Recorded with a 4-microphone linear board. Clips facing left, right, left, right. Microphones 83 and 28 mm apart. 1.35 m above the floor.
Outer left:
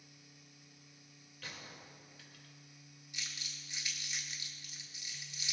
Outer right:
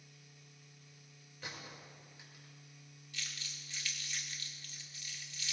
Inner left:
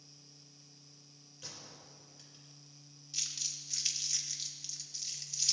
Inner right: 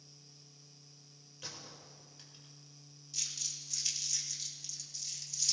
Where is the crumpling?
20° left (ahead or behind), 2 m.